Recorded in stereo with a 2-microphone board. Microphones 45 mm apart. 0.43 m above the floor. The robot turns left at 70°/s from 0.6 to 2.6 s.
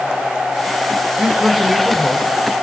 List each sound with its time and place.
1.2 s a man speaking: 140° right, 1.3 m; by 2.3 s 145° left, 1.3 m